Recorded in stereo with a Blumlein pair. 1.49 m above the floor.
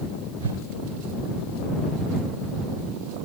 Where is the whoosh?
65° right.